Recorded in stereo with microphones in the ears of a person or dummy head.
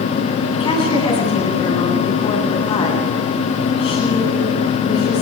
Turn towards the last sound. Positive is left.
turn(degrees=35)  # may be behind; listen again after turning